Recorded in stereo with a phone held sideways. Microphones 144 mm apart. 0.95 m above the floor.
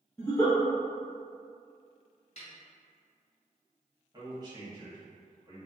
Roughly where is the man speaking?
Right.